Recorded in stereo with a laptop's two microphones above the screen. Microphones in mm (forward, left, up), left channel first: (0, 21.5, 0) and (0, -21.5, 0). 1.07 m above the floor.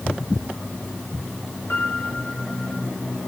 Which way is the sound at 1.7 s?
65° left (ahead or behind).